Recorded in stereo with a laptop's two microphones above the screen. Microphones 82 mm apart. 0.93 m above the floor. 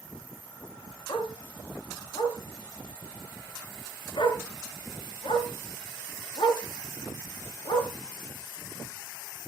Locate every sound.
1.1 s a dog barking: 75° left (ahead or behind), 3 m